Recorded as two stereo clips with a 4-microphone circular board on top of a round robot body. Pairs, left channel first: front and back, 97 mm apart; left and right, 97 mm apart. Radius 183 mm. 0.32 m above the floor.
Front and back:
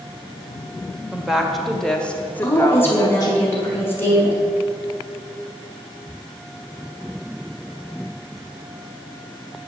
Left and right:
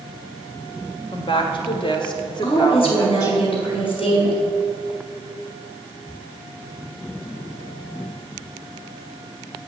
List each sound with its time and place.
1.1 s a woman speaking: 100° left, 2.0 m; by 3.4 s 35° left, 1.7 m
2.4 s a woman speaking: 70° left, 5 m